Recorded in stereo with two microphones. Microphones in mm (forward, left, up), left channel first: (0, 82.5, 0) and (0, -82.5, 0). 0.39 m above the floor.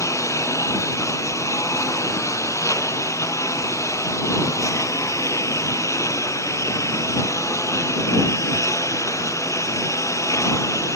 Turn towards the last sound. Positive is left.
turn(degrees=15)  # may be behind; listen again after turning